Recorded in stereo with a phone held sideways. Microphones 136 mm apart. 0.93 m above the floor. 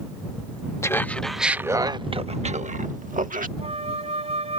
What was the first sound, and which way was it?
Laughter, 20° left (ahead or behind).